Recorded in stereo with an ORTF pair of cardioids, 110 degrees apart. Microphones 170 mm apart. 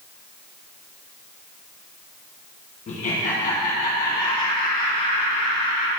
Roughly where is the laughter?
Ahead left.